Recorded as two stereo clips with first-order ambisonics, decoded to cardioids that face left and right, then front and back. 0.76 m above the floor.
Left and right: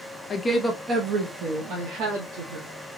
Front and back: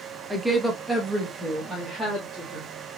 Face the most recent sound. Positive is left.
turn(degrees=-85)